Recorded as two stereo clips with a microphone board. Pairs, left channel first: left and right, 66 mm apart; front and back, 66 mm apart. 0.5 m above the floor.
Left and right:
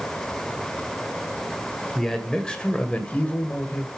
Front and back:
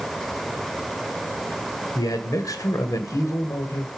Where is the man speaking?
5° left, 2 m; by 3.9 s 30° left, 2 m.